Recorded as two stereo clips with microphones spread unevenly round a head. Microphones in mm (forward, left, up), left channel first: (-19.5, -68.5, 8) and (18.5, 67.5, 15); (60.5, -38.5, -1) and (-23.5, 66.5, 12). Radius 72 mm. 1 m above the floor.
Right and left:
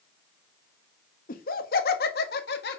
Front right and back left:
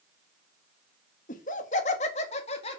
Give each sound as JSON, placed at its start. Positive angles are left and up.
{"t": 1.3, "sound": "laughter", "azimuth_deg": -85, "distance_m": 1.5}